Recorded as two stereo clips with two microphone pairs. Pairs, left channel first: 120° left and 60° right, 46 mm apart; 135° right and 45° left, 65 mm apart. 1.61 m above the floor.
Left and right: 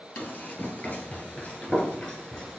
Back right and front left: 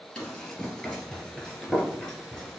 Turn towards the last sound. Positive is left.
turn(degrees=165)